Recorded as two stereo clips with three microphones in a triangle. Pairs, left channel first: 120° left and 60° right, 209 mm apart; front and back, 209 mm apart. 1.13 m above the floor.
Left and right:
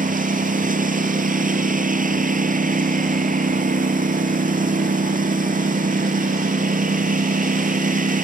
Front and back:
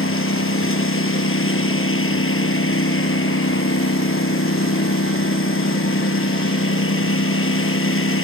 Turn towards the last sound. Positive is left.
turn(degrees=-10)